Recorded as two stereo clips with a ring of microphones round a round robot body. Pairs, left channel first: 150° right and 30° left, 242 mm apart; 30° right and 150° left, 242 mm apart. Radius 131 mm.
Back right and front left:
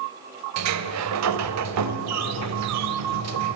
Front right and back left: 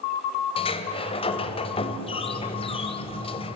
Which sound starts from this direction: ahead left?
A sliding door, at 0.6 s.